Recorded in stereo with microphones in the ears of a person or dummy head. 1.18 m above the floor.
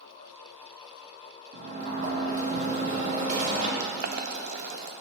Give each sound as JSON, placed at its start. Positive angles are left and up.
{"t": 1.5, "sound": "a sliding door", "side_deg": -40, "distance_m": 1.4}
{"t": 3.8, "sound": "boiling", "side_deg": -55, "distance_m": 0.5}